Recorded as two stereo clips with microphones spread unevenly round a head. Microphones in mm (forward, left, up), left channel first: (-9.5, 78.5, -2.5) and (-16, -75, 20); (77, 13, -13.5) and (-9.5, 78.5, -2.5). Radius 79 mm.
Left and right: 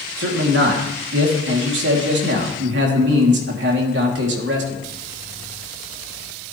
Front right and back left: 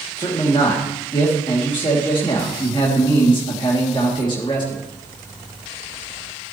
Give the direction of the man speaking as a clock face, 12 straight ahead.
3 o'clock.